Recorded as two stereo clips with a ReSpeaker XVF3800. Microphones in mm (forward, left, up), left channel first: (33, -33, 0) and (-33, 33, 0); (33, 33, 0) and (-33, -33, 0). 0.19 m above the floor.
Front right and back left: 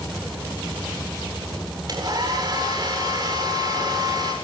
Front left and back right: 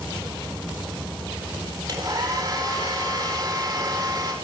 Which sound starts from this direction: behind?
A hair dryer, at 1.9 s.